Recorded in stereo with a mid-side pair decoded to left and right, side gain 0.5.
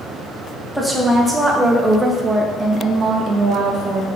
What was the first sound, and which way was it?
A woman speaking, 5° right.